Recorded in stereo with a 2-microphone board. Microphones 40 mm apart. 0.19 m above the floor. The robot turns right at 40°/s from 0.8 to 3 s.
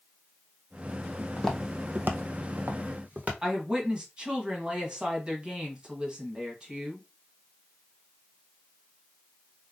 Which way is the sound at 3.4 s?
20° right (ahead or behind).